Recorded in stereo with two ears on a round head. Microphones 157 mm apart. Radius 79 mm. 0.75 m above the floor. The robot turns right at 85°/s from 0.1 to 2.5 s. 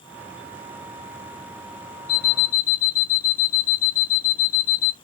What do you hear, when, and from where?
2.1 s an alarm clock: 50° left, 0.6 m; by 4.9 s 85° left, 0.6 m